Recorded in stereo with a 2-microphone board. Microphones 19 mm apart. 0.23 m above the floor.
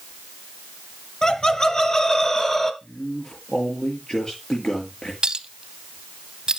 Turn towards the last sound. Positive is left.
turn(degrees=-45)  # may be behind; listen again after turning